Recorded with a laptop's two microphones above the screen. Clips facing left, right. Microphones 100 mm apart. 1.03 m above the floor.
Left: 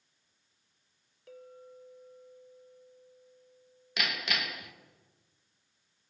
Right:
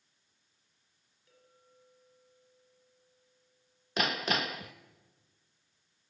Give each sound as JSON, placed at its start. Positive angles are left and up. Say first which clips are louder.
{"t": 1.3, "sound": "a clink", "louder": "left 16 dB", "side_deg": 80, "distance_m": 2.0}
{"t": 4.0, "sound": "hammering", "louder": "right 4 dB", "side_deg": -35, "distance_m": 0.8}